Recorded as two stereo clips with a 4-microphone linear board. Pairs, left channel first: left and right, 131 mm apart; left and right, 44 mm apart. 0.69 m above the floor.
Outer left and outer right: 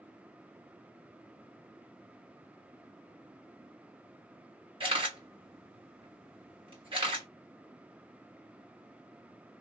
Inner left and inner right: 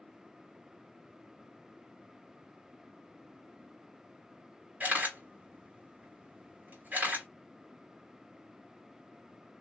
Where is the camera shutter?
45° right (ahead or behind), 1.9 m.